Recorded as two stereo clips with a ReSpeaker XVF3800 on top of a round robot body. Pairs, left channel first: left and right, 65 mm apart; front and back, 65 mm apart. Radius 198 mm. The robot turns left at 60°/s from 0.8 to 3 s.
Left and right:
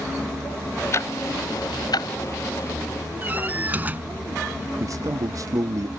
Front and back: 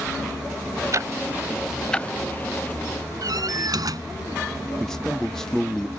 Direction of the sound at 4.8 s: 80° right.